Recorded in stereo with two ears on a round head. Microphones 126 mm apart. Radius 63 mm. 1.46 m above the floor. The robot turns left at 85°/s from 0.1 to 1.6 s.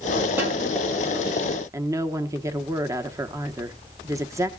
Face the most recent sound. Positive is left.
turn(degrees=-20)  # may be behind; listen again after turning